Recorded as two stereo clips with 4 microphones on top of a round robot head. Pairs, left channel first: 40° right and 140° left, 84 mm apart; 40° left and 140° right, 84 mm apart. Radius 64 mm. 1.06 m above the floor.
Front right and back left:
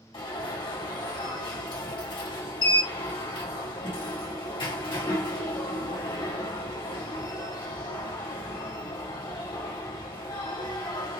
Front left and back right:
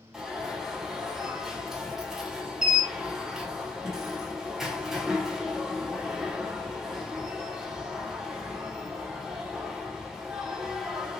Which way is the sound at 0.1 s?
55° right.